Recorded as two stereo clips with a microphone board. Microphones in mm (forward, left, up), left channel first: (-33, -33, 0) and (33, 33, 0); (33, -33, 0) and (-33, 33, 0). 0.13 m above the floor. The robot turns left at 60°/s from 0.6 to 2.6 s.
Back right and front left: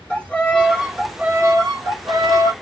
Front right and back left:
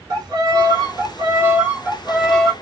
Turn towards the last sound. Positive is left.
turn(degrees=25)